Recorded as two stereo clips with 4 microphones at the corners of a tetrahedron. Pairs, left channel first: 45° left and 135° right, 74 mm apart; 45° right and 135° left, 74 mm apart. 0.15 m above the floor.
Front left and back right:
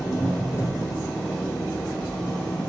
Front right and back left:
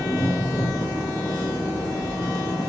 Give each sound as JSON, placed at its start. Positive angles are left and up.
{"t": 0.0, "sound": "an engine running", "azimuth_deg": -5, "distance_m": 4.5}